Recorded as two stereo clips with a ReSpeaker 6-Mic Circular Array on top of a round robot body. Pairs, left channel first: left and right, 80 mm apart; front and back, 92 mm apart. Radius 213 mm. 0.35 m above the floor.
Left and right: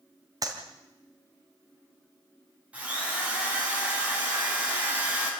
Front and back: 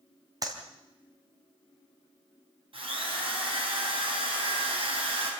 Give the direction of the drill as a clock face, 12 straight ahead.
5 o'clock.